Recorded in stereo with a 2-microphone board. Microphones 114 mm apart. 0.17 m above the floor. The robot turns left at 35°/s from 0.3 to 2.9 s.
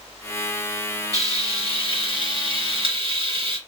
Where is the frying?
45° right, 2.5 m; by 3.6 s 110° right, 2.5 m.